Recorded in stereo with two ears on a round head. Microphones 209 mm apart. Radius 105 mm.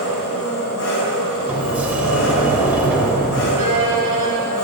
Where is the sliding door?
5° right (ahead or behind), 0.9 m.